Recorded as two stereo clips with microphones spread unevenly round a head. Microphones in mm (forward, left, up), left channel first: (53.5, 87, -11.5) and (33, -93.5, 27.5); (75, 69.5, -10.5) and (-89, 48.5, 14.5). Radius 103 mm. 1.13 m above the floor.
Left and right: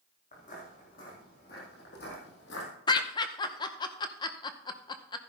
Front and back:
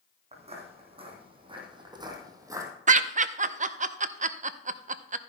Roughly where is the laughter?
Behind left.